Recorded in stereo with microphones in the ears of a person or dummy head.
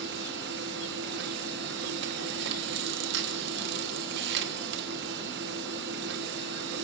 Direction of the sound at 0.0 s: 70° right (ahead or behind).